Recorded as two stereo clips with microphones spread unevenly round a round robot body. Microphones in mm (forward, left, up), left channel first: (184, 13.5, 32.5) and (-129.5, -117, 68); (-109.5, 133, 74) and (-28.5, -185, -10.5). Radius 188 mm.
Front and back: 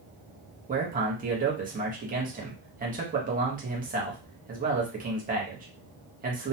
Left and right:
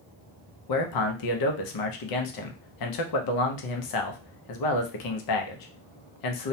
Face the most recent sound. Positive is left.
turn(degrees=135)